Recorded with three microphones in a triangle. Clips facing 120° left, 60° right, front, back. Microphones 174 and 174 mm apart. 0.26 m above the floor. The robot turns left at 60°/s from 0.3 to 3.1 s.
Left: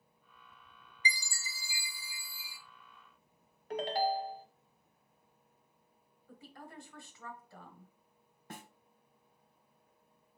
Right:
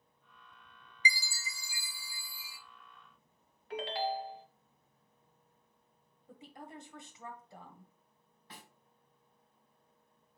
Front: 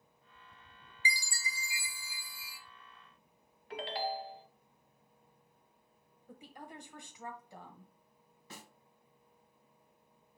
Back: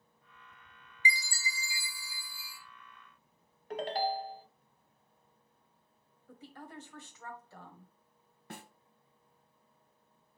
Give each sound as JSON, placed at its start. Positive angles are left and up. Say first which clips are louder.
{"t": 1.1, "sound": "a chime", "louder": "right 2 dB, back 3 dB", "azimuth_deg": -125, "distance_m": 0.7}
{"t": 3.7, "sound": "a ringtone", "louder": "left 3 dB, back 4 dB", "azimuth_deg": 150, "distance_m": 0.6}
{"t": 6.3, "sound": "a woman speaking", "louder": "right 2 dB, back 1 dB", "azimuth_deg": -40, "distance_m": 1.3}
{"t": 8.5, "sound": "a snare drum", "louder": "left 6 dB, back 5 dB", "azimuth_deg": 155, "distance_m": 0.7}